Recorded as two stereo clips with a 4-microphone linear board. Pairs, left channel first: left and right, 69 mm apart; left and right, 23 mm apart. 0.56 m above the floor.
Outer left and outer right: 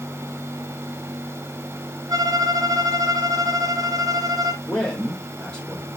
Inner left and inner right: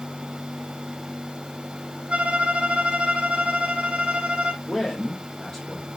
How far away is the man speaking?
About 1.6 m.